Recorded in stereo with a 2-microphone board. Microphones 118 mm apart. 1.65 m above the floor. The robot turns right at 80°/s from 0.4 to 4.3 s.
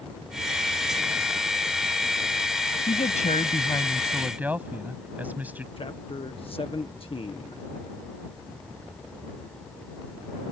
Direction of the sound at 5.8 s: 50° left (ahead or behind).